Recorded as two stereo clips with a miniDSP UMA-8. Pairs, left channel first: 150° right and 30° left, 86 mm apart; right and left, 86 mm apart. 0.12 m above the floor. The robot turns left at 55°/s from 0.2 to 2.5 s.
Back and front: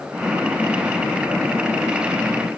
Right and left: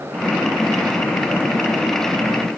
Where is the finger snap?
I don't hear a finger snap.